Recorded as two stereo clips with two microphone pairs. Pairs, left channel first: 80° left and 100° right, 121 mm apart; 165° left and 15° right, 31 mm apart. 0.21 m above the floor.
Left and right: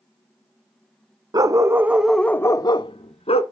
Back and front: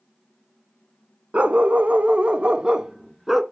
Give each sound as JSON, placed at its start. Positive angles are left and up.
{"t": 1.3, "sound": "a dog barking", "azimuth_deg": -45, "distance_m": 0.8}